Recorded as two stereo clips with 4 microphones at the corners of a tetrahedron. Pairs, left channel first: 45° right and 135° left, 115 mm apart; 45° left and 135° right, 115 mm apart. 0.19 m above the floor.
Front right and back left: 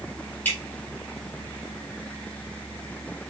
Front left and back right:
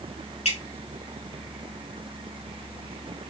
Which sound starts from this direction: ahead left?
Dripping, at 0.5 s.